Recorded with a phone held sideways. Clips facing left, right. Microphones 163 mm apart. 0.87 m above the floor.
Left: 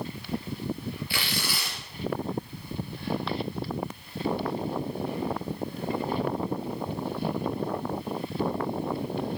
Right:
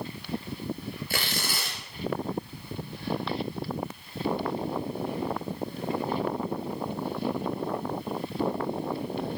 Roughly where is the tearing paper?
Right.